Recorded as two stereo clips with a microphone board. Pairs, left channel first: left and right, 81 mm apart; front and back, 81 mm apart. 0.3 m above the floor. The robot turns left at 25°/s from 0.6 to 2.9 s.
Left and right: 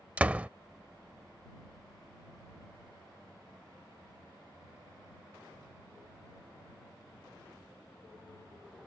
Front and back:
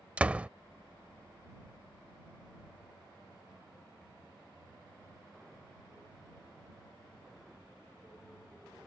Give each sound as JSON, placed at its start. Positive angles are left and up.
{"t": 0.2, "sound": "a door slam", "azimuth_deg": -135}